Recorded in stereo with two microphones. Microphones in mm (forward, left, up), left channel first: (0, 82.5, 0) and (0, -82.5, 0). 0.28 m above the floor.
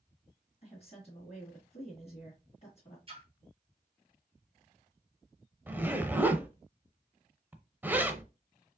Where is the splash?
35° right (ahead or behind), 1.2 m.